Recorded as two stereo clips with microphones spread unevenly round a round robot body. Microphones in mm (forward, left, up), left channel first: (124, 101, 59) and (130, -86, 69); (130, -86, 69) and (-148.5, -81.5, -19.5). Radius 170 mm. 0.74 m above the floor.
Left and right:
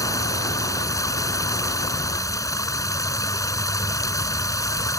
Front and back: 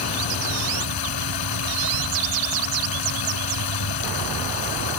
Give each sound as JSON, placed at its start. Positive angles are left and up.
{"t": 0.0, "sound": "running water", "azimuth_deg": 20}